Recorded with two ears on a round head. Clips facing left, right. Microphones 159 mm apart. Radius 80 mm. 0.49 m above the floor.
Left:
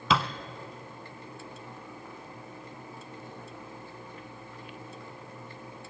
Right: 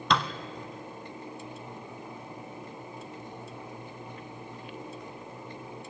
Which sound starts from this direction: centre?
A thud, at 0.1 s.